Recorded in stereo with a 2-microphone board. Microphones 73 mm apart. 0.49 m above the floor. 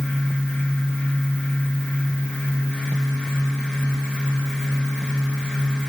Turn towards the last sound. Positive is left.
No sound to turn to.